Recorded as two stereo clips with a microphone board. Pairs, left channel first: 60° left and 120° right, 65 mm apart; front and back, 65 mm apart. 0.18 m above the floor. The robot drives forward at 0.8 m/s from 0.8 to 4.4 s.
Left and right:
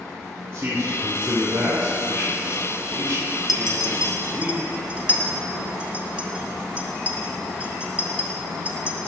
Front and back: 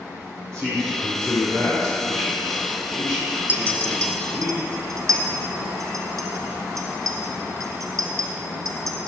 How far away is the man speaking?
About 3 m.